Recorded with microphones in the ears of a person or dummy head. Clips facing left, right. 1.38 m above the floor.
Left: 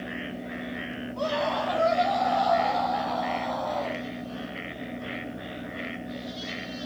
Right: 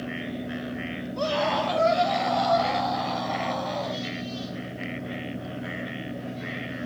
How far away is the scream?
About 4.5 m.